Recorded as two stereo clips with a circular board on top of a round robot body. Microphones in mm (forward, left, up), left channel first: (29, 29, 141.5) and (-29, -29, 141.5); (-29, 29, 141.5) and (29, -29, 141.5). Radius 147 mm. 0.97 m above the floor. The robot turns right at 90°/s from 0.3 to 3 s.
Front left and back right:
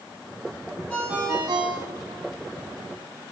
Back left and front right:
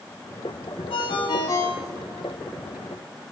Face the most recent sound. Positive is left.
turn(degrees=-45)